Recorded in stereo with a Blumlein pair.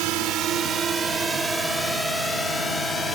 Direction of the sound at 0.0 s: 40° right.